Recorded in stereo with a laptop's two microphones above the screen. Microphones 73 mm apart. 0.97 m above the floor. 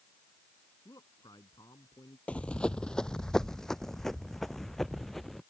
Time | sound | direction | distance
0.8 | a man speaking | 60° left (ahead or behind) | ?
2.3 | running footsteps | 15° left (ahead or behind) | ?